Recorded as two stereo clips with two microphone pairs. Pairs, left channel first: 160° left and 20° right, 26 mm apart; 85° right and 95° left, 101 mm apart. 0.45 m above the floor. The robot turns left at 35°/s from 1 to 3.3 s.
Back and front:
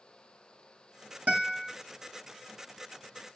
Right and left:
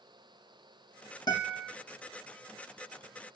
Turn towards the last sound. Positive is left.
turn(degrees=-105)